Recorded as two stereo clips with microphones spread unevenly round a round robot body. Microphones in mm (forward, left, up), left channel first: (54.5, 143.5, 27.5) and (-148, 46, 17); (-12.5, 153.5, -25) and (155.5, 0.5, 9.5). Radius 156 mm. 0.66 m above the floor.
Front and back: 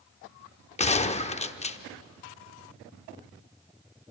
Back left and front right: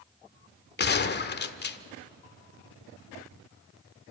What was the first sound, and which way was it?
A gunshot, 90° left.